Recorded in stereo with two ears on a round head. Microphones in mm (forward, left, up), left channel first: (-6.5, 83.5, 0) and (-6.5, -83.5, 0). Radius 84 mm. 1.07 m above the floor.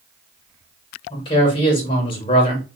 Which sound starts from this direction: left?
A man speaking, at 1.1 s.